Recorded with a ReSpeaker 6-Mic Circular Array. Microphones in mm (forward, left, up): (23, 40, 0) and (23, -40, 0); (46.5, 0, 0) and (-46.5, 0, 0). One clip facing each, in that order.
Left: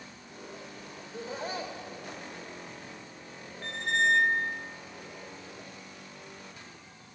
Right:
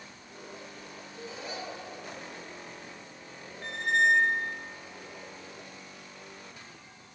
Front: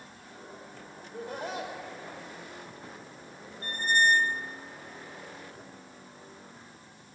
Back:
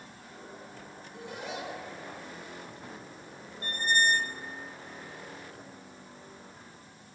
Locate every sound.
1.0 s laughter: 45° left, 2.5 m
3.6 s a squeak: 175° right, 0.7 m